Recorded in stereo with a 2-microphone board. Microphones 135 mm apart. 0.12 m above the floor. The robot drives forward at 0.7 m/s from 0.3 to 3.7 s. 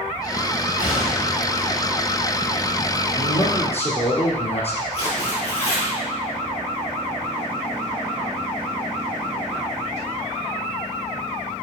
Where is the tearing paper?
45° left (ahead or behind), 3 m.